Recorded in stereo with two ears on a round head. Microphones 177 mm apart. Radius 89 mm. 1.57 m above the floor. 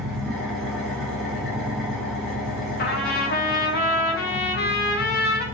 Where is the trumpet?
50° left (ahead or behind), 0.6 m.